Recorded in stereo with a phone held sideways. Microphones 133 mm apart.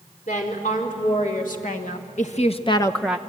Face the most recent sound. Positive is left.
turn(degrees=-15)  # may be behind; listen again after turning